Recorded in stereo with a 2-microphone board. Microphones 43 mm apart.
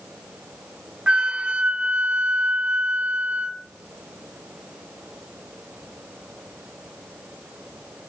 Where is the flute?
25° right (ahead or behind), 0.5 m.